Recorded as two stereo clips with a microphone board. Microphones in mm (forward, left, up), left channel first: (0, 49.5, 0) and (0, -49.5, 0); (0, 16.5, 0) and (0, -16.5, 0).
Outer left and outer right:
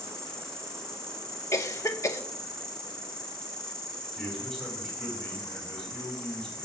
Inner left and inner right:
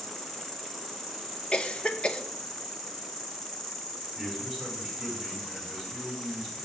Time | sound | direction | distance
0.0 | an insect | 5° left (ahead or behind) | 2 m
1.5 | a cough | 30° left (ahead or behind) | 0.7 m
4.2 | a man speaking | 5° left (ahead or behind) | 5 m